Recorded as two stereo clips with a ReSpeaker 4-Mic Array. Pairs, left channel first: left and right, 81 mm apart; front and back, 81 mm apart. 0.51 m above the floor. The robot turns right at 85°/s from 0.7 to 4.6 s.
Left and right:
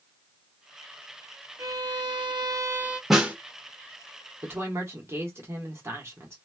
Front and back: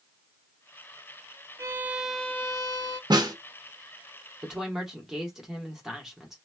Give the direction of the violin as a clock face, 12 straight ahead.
4 o'clock.